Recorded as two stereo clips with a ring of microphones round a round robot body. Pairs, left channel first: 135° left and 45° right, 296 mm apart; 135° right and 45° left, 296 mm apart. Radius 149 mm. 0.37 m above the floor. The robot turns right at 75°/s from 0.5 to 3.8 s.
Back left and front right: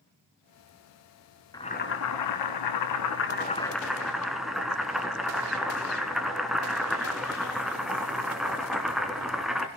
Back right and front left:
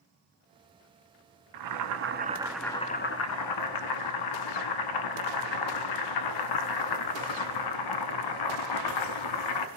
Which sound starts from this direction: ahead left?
Boiling, at 1.5 s.